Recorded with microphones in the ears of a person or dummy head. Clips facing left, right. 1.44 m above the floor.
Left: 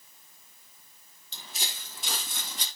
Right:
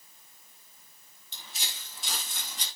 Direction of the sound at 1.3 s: 40° left (ahead or behind).